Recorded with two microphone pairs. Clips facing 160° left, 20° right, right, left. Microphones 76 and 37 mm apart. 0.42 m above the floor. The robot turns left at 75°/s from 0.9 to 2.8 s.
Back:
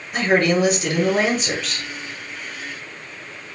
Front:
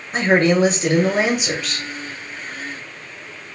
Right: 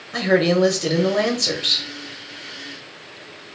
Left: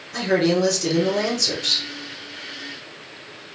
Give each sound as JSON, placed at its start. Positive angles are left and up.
{"t": 0.1, "sound": "a man speaking", "azimuth_deg": -50, "distance_m": 1.1}